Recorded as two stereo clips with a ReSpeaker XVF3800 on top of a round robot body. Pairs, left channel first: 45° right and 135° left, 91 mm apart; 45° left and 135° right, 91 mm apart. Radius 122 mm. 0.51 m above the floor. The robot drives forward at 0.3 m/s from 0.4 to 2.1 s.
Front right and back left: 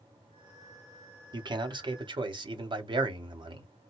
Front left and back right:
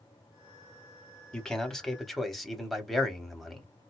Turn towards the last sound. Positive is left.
turn(degrees=135)